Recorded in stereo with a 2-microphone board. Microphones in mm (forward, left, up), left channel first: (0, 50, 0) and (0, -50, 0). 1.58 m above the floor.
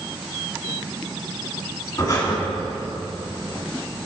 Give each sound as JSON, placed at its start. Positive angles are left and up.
{"t": 2.0, "sound": "breathing", "side_deg": 40, "distance_m": 2.0}